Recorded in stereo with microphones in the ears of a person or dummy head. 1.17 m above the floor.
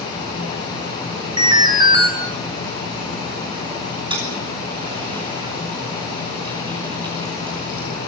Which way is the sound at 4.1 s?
30° right (ahead or behind).